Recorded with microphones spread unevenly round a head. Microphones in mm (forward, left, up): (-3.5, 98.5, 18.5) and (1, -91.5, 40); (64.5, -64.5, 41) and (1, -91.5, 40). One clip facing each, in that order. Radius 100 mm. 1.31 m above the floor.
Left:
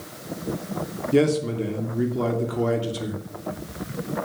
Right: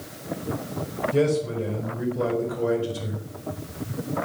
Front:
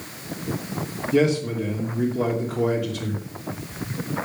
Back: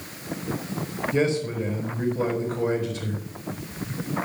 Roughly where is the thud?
No thud in this recording.